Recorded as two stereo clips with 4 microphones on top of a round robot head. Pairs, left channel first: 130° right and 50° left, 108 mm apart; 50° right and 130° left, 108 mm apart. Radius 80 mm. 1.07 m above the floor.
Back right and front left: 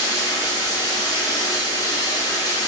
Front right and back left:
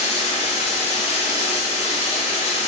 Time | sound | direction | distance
0.0 | running water | 70° right | 1.4 m